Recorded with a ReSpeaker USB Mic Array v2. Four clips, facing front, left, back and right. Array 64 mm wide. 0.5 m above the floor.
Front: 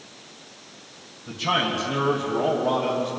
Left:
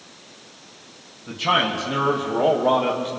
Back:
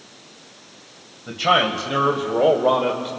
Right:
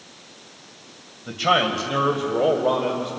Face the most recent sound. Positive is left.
turn(degrees=165)